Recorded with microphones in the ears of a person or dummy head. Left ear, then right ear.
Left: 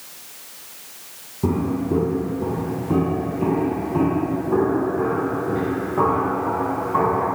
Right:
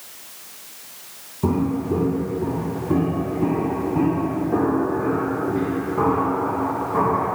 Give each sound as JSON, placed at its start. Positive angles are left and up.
{"t": 1.4, "sound": "footsteps", "side_deg": -10, "distance_m": 2.0}